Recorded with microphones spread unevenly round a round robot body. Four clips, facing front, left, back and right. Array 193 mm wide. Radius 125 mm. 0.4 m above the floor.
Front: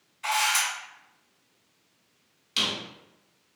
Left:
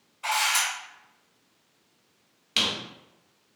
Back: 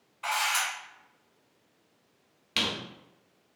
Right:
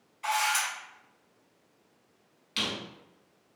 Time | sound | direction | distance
0.2 | a camera shutter | 155° right | 0.9 m
2.6 | a squeak | 120° left | 0.8 m